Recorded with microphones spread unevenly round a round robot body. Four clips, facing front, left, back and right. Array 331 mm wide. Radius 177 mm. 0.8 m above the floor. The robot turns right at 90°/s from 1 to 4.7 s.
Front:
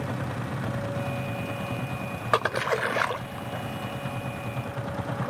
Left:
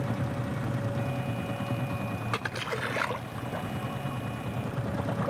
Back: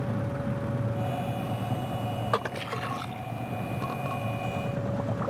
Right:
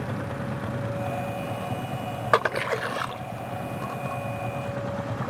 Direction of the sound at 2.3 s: 65° right.